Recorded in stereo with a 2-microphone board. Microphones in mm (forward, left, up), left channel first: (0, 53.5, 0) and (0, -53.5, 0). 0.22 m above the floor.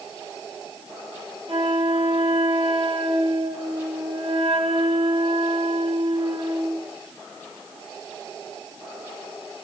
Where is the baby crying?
I don't hear a baby crying.